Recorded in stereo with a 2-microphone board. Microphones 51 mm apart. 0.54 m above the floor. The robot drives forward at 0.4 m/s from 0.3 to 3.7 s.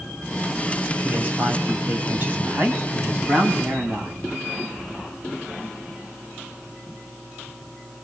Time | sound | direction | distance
1.0 | a man speaking | 40° right (ahead or behind) | 4 m